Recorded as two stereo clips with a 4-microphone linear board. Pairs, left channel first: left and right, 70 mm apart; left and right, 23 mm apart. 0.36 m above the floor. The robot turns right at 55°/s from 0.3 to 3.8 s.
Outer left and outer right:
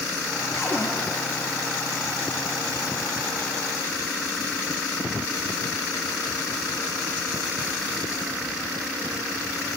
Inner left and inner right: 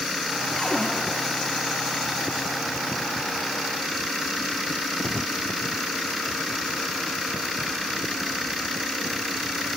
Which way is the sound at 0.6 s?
35° left (ahead or behind).